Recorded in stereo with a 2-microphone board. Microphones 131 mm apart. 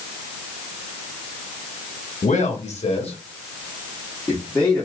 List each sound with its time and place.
2.2 s a man speaking: 65° left (ahead or behind), 1.3 m; by 4.9 s 5° left (ahead or behind), 1.2 m